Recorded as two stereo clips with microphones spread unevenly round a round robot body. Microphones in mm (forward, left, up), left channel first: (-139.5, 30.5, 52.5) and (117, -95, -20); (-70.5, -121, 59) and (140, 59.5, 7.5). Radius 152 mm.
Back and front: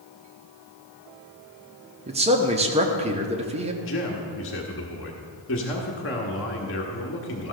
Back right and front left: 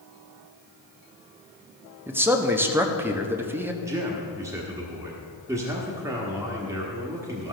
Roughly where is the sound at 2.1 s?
Ahead.